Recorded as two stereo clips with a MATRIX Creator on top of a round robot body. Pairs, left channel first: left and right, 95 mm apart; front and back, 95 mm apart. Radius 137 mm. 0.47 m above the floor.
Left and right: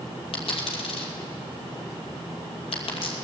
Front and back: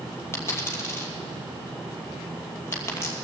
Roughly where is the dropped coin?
Ahead left.